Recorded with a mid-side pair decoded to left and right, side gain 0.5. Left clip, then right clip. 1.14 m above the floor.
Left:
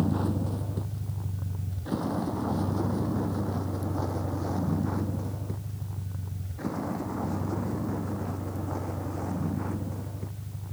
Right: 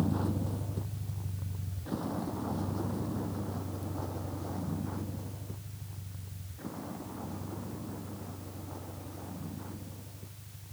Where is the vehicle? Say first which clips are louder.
Left 4 dB; 30° left; by 10.7 s 65° left.